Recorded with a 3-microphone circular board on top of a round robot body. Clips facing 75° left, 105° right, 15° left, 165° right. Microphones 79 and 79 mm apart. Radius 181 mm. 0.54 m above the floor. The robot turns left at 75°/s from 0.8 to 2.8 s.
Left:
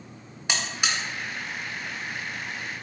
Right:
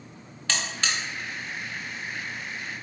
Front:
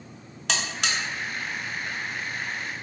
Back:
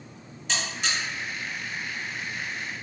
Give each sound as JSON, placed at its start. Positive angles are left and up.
{"t": 0.5, "sound": "a buzzer", "azimuth_deg": 0, "distance_m": 0.5}